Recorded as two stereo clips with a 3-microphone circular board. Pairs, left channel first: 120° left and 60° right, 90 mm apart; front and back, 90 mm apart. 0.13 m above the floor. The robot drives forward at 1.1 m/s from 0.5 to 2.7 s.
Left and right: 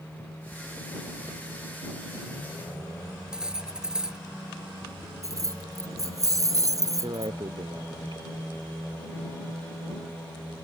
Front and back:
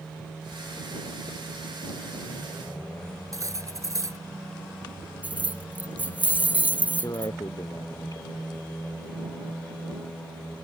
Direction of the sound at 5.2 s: 110° right.